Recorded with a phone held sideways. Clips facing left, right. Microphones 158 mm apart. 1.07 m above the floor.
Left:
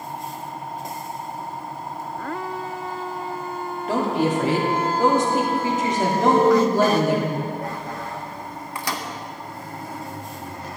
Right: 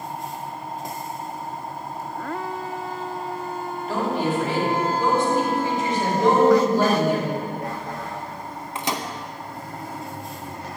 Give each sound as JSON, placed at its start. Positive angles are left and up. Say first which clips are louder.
{"t": 3.9, "sound": "a woman speaking", "louder": "left 3 dB", "side_deg": 85, "distance_m": 2.5}
{"t": 6.2, "sound": "a cowbell", "louder": "even", "side_deg": -70, "distance_m": 3.0}
{"t": 8.8, "sound": "a microwave", "louder": "right 2 dB", "side_deg": -20, "distance_m": 0.8}